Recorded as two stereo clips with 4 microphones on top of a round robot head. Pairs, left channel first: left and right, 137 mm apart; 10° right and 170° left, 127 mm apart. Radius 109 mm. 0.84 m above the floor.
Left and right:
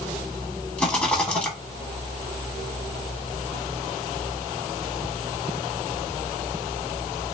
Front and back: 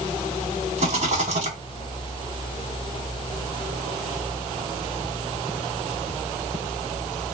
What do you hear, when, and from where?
0.8 s a rattle: 170° left, 1.7 m